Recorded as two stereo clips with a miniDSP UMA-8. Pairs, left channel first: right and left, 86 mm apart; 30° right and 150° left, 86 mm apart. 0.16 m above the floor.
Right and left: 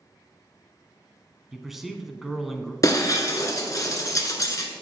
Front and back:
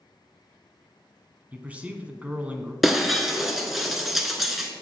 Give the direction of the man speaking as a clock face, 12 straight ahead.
6 o'clock.